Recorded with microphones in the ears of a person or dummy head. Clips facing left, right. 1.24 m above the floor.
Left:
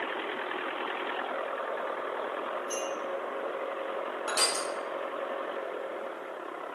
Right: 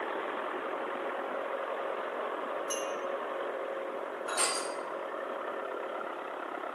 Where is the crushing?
75° left (ahead or behind), 1.2 m.